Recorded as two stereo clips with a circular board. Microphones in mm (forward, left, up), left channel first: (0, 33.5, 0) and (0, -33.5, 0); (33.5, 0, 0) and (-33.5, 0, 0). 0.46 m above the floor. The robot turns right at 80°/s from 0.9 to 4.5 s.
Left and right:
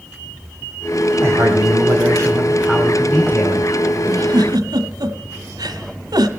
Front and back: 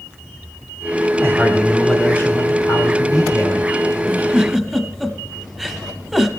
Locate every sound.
1.2 s a man speaking: 130° right, 3 m; by 3.7 s 65° left, 3 m
4.1 s a giggle: 130° right, 1.2 m; by 6.3 s 95° right, 1.2 m